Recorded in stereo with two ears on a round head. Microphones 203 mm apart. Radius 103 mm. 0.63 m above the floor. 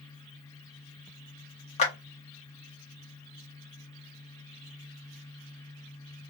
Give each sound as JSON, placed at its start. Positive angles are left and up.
{"t": 1.8, "sound": "a clap", "side_deg": 30, "distance_m": 0.8}